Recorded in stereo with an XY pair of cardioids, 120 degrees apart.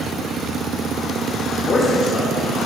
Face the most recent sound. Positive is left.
turn(degrees=25)